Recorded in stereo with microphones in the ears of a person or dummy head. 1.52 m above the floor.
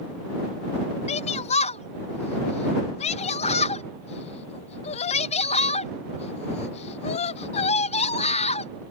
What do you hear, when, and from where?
1.1 s a shout: 40° left (ahead or behind)